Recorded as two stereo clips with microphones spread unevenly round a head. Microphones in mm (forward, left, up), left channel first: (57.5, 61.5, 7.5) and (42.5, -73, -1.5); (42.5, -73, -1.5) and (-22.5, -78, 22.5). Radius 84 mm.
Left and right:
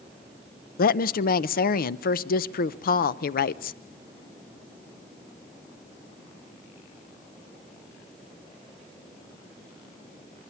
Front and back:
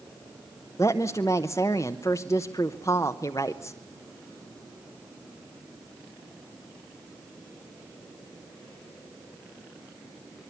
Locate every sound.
0.8 s a woman speaking: 70° left, 0.6 m